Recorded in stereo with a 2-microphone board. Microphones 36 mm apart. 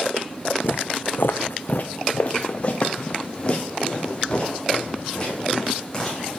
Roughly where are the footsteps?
Left.